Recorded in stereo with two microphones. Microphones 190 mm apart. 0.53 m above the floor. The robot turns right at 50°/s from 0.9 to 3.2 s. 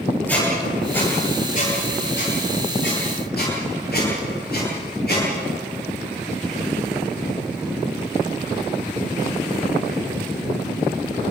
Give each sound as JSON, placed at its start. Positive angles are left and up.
{"t": 0.3, "sound": "a squeak", "side_deg": 10, "distance_m": 8.0}